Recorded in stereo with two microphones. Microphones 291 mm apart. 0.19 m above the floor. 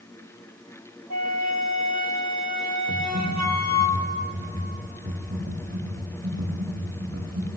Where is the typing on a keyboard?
40° right (ahead or behind), 9 m.